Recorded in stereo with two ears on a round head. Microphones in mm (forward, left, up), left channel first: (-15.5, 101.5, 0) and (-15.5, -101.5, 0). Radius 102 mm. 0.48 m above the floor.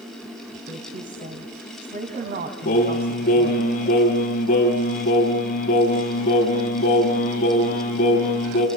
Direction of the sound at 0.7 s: 40° right (ahead or behind).